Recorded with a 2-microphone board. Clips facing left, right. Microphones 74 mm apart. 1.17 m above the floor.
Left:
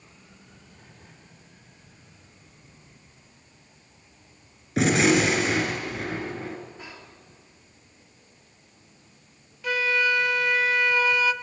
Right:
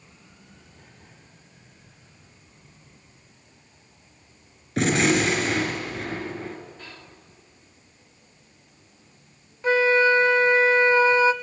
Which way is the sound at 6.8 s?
15° left (ahead or behind).